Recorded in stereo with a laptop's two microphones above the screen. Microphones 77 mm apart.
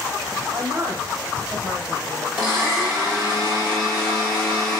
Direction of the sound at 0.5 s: 60° right (ahead or behind).